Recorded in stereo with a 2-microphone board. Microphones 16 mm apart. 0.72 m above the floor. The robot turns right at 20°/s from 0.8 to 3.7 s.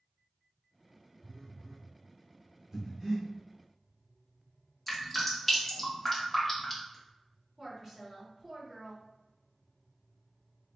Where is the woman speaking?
20° right (ahead or behind), 1.9 m.